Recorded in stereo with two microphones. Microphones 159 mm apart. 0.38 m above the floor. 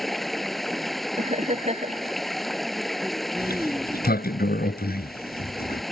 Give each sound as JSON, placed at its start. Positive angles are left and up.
{"t": 0.0, "sound": "running water", "side_deg": 0}
{"t": 1.2, "sound": "laughter", "side_deg": -40}
{"t": 3.4, "sound": "a sliding door", "side_deg": 75}